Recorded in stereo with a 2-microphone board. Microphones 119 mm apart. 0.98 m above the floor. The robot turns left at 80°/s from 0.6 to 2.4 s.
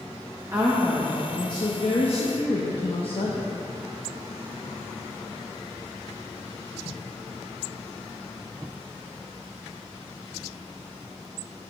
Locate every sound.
0.5 s a woman speaking: 155° right, 0.8 m; by 3.5 s 65° left, 0.8 m